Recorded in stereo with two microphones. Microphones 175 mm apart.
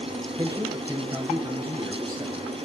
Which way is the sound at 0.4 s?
20° right (ahead or behind).